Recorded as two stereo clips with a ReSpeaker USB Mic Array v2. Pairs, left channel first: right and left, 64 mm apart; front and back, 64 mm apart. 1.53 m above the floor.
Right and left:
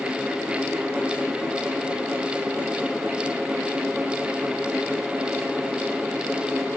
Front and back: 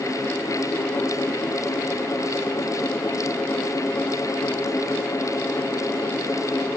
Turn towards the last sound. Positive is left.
No sound to turn to.